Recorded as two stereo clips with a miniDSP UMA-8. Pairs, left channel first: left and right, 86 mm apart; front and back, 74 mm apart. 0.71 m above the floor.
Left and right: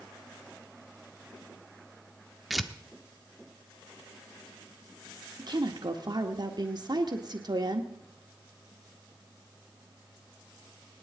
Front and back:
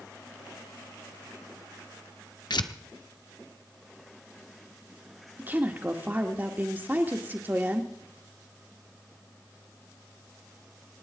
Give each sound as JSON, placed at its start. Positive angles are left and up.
{"t": 2.5, "sound": "tearing paper", "azimuth_deg": 0, "distance_m": 0.8}
{"t": 5.4, "sound": "a woman speaking", "azimuth_deg": -120, "distance_m": 1.7}